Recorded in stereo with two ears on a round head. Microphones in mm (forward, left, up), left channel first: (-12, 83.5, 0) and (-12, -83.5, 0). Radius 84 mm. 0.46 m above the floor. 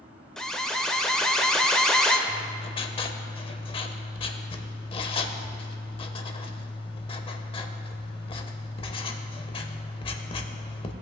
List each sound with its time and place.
0.4 s an alarm: 5° left (ahead or behind), 0.9 m
2.3 s writing: 30° left (ahead or behind), 0.7 m